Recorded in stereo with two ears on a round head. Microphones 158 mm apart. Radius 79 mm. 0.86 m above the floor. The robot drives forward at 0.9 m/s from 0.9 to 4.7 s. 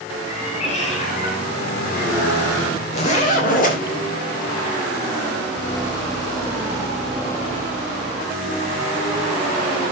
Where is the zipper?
40° left (ahead or behind), 3 m; by 3.8 s 50° left (ahead or behind), 2.5 m.